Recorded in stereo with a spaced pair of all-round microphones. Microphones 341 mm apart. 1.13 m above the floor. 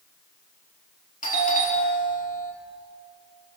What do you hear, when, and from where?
1.2 s a doorbell: 25° left (ahead or behind), 3.5 m